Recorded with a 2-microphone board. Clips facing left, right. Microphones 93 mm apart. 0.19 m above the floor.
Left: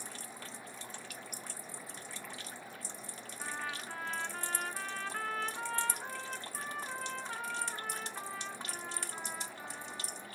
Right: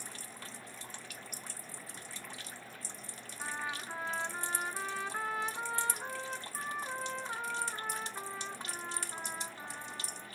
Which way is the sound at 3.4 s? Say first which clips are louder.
Right 2 dB; 15° right (ahead or behind).